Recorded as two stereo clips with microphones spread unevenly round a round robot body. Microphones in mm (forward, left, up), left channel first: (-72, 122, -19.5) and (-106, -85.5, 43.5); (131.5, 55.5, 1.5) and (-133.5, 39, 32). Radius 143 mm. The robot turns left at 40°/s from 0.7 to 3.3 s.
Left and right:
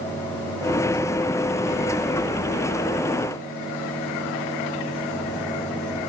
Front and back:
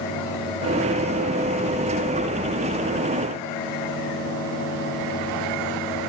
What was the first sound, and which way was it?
Only background noise.